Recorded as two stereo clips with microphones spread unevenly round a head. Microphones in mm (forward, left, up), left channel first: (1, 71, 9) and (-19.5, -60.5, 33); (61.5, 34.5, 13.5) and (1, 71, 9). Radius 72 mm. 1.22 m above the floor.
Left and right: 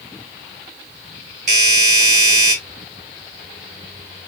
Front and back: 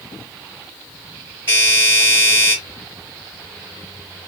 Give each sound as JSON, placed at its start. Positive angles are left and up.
{"t": 1.5, "sound": "a doorbell", "azimuth_deg": -135, "distance_m": 4.0}